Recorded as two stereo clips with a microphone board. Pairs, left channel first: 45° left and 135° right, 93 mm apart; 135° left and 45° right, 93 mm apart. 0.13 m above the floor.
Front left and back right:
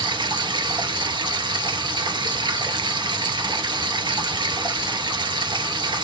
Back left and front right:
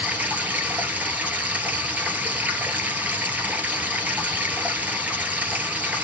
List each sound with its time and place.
0.0 s running water: 115° right, 1.8 m